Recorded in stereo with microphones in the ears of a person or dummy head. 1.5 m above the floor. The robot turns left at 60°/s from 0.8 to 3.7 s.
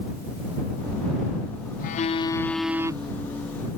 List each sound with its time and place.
1.8 s a phone buzzing: 50° left; by 3.1 s 30° right